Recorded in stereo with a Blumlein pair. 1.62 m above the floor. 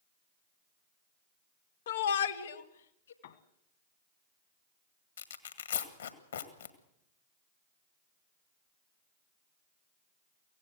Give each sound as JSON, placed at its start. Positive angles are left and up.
{"t": 1.9, "sound": "a shout", "azimuth_deg": 55, "distance_m": 0.9}
{"t": 3.2, "sound": "a piano", "azimuth_deg": 60, "distance_m": 1.5}
{"t": 5.2, "sound": "tearing paper", "azimuth_deg": 70, "distance_m": 1.7}